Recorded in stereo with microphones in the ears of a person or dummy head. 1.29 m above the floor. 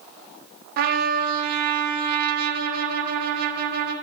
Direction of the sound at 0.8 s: 55° right (ahead or behind).